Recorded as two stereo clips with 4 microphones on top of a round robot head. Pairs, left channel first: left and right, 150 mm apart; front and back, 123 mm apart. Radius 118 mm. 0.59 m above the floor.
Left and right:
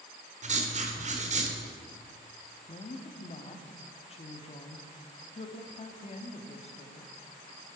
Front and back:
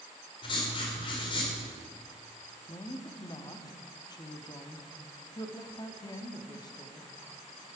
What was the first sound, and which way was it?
Writing, 55° right.